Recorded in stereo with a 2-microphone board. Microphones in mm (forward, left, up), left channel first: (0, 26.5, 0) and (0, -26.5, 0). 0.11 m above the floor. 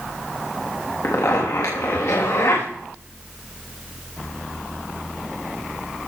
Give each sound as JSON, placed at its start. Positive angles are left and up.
{"t": 1.0, "sound": "a zipper", "side_deg": 70, "distance_m": 7.5}